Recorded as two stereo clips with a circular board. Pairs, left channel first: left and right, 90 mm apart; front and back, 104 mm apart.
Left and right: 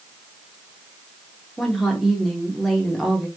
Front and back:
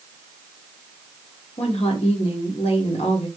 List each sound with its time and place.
1.6 s a woman speaking: straight ahead, 1.4 m